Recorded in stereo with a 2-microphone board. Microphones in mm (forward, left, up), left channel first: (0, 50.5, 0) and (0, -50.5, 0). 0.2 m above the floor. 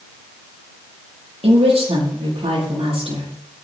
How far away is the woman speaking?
About 6.5 m.